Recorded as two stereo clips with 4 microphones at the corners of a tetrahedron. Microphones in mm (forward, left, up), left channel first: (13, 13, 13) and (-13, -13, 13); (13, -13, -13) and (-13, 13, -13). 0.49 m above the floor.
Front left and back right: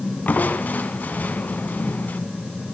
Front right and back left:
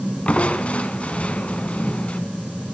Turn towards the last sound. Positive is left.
turn(degrees=10)